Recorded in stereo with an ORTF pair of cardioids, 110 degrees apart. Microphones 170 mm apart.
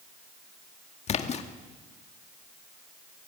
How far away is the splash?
About 1.9 m.